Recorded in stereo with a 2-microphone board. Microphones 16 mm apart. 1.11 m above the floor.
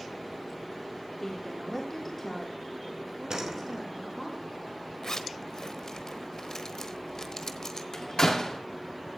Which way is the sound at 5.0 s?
40° left (ahead or behind).